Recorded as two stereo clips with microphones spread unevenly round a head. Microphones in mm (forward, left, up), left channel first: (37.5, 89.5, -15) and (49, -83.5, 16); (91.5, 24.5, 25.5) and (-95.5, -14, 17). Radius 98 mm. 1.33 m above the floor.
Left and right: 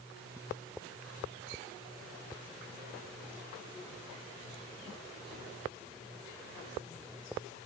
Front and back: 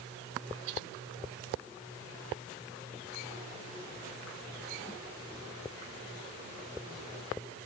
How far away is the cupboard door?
I don't hear a cupboard door.